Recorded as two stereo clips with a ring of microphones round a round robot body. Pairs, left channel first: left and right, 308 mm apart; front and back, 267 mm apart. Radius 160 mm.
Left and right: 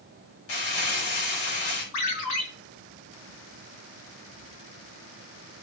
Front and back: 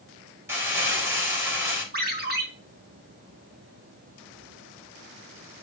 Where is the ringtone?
125° left, 3 m.